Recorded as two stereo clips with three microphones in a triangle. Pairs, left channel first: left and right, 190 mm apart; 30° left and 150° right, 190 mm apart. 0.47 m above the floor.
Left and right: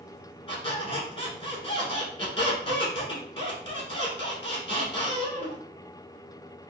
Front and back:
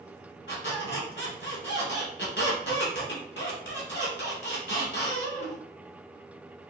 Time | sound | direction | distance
0.5 | a squeak | 30° left | 1.1 m